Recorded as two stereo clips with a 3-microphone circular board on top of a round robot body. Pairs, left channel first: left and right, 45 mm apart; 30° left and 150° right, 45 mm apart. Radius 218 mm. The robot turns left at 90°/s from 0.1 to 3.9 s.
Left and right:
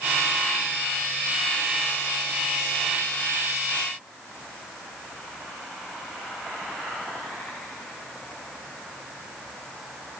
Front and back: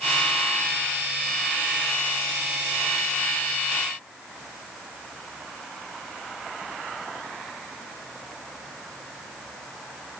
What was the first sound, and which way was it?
Only background noise.